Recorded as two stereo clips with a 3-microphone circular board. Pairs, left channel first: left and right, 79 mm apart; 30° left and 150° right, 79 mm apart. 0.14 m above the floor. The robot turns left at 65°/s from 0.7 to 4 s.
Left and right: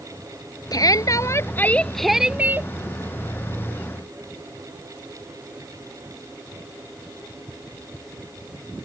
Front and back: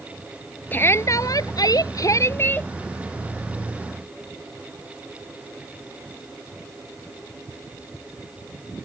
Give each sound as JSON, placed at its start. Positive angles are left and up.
{"t": 0.7, "sound": "a shout", "azimuth_deg": 90}